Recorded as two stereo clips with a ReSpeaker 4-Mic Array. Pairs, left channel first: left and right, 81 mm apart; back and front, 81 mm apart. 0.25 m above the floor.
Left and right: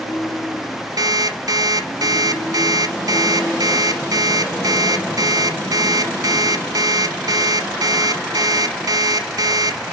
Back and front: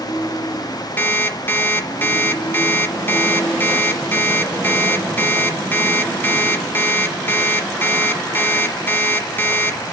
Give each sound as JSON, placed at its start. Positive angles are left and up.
{"t": 1.0, "sound": "an alarm clock", "azimuth_deg": -120, "distance_m": 1.1}